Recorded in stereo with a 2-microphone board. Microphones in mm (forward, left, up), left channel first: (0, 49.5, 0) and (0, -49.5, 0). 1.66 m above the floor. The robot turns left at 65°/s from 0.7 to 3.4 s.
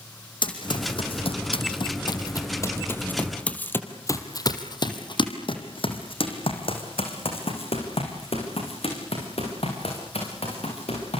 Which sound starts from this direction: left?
Running footsteps, at 0.4 s.